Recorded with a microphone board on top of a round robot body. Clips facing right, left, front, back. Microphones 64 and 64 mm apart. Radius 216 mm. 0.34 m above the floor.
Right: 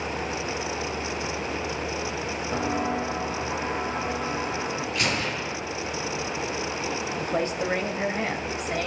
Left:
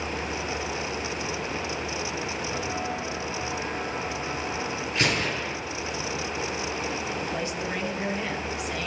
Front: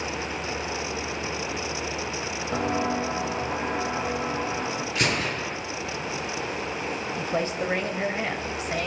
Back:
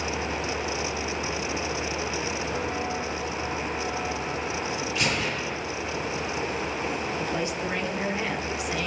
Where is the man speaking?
50° right, 3.5 m.